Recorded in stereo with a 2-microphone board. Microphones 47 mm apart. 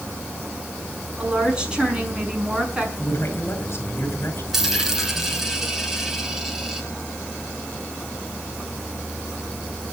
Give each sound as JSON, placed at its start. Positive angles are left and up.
{"t": 1.2, "sound": "a woman speaking", "side_deg": -20, "distance_m": 5.5}
{"t": 3.0, "sound": "a man speaking", "side_deg": 50, "distance_m": 6.5}
{"t": 4.5, "sound": "a dropped coin", "side_deg": -10, "distance_m": 3.0}